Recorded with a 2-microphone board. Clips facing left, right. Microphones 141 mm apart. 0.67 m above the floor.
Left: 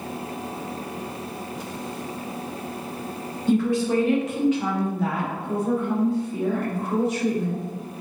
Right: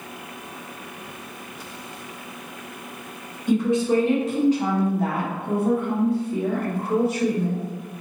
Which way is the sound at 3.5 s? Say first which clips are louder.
Right 1 dB; 20° right (ahead or behind).